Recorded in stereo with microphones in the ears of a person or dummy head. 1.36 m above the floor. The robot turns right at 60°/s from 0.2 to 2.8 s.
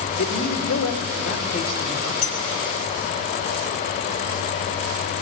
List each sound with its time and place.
0.2 s a man speaking: 55° left, 2.5 m; by 2.1 s 170° left, 2.5 m
2.2 s a clink: 85° left, 6 m; by 2.5 s 80° left, 6 m